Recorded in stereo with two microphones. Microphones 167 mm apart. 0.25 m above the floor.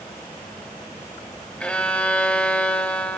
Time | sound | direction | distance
1.6 | a violin | 5° left (ahead or behind) | 0.8 m